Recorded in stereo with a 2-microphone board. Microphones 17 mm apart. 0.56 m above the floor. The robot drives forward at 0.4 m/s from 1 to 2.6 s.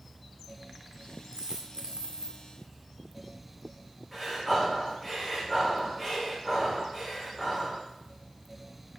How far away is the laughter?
No laughter in this recording.